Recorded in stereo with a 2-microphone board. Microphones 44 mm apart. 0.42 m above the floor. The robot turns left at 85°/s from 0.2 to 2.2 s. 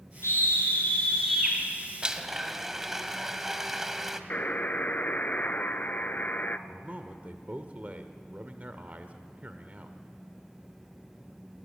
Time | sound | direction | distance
0.2 | a scream | 100° left | 5.5 m
2.0 | a blender | 25° right (ahead or behind) | 1.2 m
4.3 | a buzzer | 40° left (ahead or behind) | 0.8 m
6.7 | a man speaking | 35° right (ahead or behind) | 1.2 m